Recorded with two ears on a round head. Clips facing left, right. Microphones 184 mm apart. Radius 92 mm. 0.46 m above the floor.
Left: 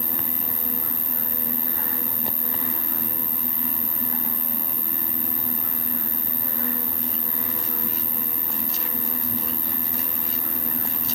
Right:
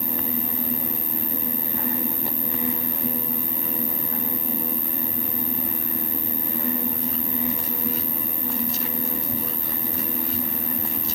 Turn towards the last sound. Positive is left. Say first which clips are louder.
# right 5 dB
turn(degrees=55)  # may be behind; listen again after turning